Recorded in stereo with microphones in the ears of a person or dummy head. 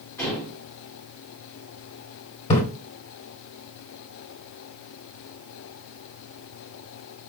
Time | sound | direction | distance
0.2 | dishes clattering | 15° left (ahead or behind) | 3.5 m
2.5 | a splash | 30° left (ahead or behind) | 1.6 m